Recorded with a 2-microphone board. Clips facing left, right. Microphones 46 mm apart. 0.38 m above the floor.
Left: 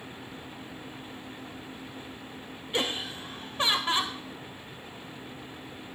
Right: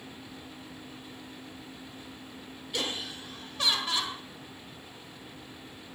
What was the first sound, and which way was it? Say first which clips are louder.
Laughter: left 4 dB; 30° left (ahead or behind).